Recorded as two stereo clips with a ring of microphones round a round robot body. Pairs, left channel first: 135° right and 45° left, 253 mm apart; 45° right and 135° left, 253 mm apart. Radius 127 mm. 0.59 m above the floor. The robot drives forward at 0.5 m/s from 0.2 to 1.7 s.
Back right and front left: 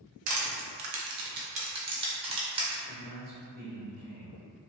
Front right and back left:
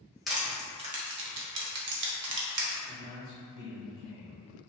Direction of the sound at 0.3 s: 45° left.